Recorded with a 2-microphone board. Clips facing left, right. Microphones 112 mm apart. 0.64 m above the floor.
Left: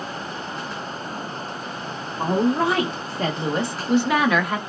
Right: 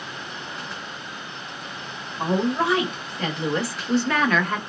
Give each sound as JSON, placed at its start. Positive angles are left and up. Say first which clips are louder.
{"t": 2.2, "sound": "a woman speaking", "louder": "left 2 dB", "side_deg": 35, "distance_m": 0.9}